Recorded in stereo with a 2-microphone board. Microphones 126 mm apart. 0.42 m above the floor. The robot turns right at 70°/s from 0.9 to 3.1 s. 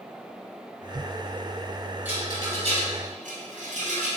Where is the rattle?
15° right (ahead or behind), 1.2 m; by 4.1 s 80° right, 1.2 m.